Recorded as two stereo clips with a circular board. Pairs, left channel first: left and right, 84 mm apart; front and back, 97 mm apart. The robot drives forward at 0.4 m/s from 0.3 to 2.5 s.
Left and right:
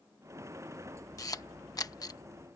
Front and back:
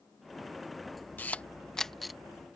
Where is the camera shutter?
65° left; by 2.6 s 100° left.